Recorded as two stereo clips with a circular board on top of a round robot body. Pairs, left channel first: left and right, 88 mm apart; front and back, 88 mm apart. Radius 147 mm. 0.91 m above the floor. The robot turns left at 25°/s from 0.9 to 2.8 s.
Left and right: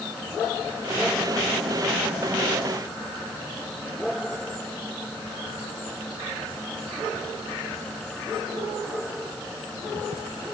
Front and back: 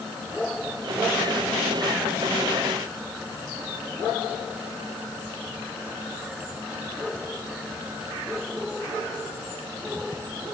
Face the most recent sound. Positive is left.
No sound to turn to.